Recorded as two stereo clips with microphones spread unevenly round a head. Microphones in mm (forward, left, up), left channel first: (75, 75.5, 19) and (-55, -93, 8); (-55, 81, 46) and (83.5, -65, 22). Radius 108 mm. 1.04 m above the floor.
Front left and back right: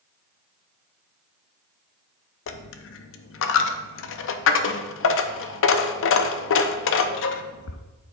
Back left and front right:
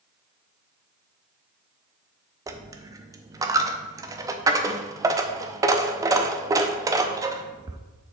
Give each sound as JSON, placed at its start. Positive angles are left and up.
{"t": 2.5, "sound": "a dropped coin", "azimuth_deg": 30, "distance_m": 0.6}